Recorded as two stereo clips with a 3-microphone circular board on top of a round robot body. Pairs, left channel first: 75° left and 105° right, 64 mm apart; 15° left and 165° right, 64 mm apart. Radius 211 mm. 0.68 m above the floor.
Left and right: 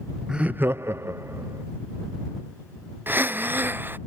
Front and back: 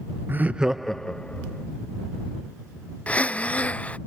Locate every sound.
0.3 s laughter: 175° right; by 1.6 s 55° right
3.1 s breathing: 50° right